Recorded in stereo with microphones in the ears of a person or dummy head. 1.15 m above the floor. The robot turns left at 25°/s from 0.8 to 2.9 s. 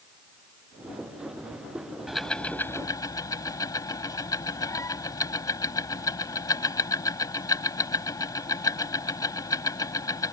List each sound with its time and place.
2.1 s ticking: 5° left (ahead or behind); by 10.3 s 25° left (ahead or behind)